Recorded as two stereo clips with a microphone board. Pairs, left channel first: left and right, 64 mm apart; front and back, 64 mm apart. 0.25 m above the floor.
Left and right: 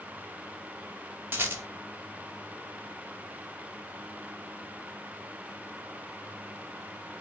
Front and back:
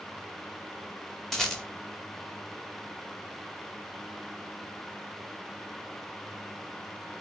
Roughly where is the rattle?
Right.